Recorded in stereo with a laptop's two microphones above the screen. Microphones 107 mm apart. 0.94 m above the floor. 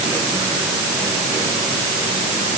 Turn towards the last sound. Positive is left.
No sound to turn to.